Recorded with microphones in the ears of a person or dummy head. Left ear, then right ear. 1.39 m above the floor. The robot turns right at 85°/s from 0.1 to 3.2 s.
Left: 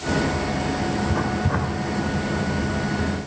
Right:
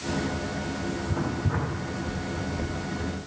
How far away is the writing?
About 1.5 m.